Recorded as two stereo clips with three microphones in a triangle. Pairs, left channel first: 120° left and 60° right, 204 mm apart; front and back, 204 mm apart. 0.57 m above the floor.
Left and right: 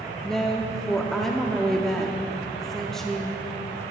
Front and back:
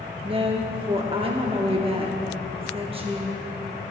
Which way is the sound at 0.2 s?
155° right.